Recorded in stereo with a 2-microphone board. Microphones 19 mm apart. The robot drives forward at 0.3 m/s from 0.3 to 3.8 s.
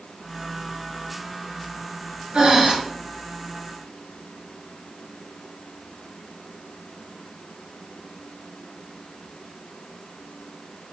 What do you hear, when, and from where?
2.3 s breathing: 40° right (ahead or behind), 1.5 m